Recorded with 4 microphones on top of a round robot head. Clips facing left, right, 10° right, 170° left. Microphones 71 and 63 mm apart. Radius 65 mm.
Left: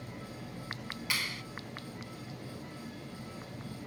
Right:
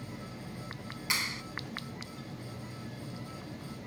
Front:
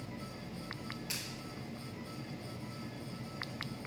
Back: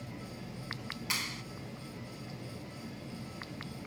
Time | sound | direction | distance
1.1 | a clap | 155° right | ?